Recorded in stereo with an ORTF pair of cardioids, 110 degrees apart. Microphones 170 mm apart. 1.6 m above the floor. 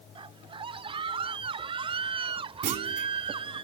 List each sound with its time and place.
0.1 s a scream: 30° right
2.6 s a clunk: 55° right